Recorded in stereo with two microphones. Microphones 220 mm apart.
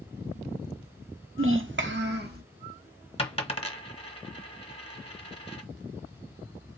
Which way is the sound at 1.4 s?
65° right (ahead or behind).